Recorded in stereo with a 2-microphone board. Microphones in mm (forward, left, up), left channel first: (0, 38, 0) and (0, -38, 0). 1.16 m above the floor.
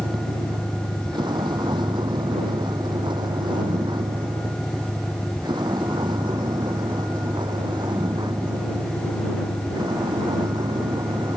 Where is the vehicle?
85° right; by 11.4 s 75° right (ahead or behind).